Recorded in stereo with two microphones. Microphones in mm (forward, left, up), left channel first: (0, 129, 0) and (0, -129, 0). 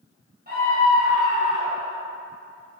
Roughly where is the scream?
Right.